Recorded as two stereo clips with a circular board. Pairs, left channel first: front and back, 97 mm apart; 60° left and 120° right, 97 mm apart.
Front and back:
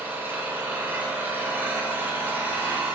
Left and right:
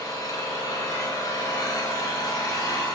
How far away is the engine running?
About 0.7 m.